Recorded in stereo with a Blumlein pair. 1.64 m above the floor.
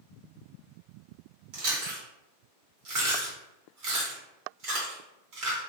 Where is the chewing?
40° right, 1.3 m.